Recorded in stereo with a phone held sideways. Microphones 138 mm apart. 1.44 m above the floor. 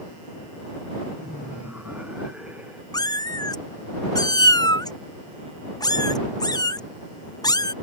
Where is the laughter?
10° right (ahead or behind).